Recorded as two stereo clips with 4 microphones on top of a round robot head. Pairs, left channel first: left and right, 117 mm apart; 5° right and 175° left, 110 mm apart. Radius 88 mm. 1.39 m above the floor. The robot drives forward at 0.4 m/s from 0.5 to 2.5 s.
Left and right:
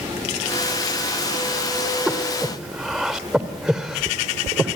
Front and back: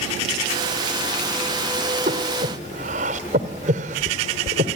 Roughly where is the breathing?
Behind.